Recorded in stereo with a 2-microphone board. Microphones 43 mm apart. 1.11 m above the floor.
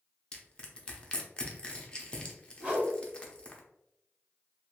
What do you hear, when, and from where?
0.3 s crushing: 25° left (ahead or behind), 0.6 m
2.6 s a whoosh: 30° right (ahead or behind), 1.3 m